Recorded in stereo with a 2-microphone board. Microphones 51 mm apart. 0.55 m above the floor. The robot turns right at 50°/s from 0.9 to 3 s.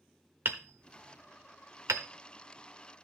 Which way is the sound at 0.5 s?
45° right (ahead or behind).